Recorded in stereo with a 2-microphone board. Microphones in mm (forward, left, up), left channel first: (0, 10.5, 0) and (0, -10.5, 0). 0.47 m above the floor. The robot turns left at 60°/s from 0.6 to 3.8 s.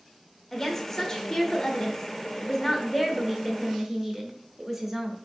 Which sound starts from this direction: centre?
A woman speaking, at 0.5 s.